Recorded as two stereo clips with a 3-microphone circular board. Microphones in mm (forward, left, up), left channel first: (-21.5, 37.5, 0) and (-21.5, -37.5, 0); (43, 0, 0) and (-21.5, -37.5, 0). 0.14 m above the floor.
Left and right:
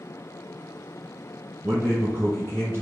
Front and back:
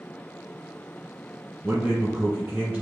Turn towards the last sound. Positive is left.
turn(degrees=-90)